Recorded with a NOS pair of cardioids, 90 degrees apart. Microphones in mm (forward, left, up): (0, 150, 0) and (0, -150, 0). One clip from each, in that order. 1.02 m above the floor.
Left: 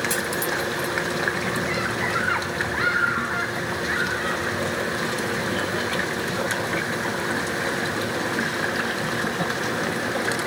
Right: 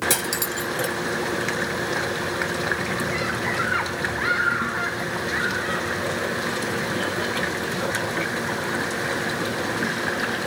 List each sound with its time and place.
0.1 s cutlery clinking: 55° right